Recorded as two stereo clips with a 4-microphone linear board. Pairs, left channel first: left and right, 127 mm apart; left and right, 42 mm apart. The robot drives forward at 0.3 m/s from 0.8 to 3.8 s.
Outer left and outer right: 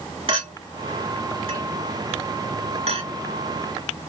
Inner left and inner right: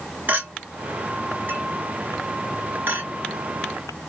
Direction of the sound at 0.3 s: 45° right (ahead or behind).